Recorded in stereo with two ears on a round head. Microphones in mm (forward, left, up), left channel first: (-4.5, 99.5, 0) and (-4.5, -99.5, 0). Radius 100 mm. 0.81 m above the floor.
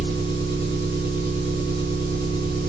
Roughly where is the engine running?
Left.